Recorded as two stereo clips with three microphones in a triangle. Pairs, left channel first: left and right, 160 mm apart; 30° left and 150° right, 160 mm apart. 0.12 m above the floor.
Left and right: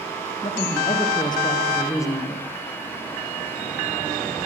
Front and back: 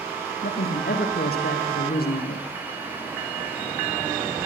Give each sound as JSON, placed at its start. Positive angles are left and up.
{"t": 0.4, "sound": "a woman speaking", "azimuth_deg": 35, "distance_m": 5.5}